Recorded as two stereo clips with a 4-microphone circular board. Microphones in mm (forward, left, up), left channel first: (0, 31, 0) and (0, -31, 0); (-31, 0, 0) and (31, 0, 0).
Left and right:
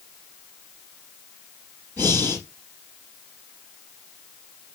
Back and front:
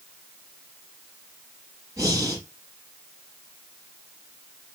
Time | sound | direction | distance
2.0 | breathing | 35° left | 5 m